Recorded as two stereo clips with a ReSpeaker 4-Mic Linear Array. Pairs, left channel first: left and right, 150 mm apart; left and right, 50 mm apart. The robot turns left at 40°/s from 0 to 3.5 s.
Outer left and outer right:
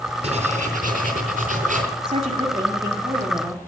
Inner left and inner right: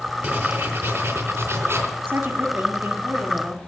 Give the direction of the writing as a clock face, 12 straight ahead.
2 o'clock.